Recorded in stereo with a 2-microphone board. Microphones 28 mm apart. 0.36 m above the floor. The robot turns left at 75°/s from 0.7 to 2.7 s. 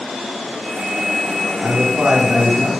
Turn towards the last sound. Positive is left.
turn(degrees=-140)